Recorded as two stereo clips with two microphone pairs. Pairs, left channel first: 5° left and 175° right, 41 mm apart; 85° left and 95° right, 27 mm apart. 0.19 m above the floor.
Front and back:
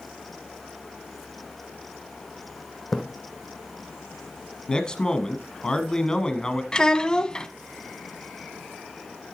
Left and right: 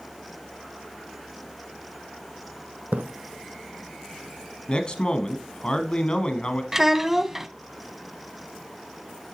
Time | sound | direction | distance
2.9 | a splash | 85° right | 1.2 m
4.7 | a man speaking | 55° left | 1.2 m
6.7 | a child speaking | 35° right | 0.6 m